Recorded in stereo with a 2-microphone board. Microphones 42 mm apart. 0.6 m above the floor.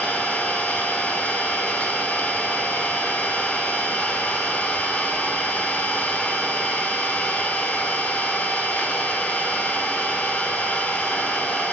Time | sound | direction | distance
0.0 | an engine running | 35° left (ahead or behind) | 1.1 m